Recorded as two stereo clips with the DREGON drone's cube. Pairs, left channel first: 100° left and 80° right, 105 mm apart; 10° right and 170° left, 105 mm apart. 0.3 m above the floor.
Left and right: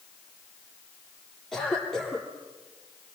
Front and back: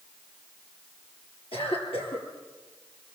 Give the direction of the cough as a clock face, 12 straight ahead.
11 o'clock.